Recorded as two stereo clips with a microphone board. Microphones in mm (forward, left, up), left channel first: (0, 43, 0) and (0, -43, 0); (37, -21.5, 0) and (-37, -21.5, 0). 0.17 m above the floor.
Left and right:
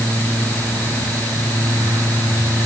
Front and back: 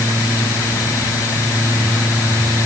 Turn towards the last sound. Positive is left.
No sound to turn to.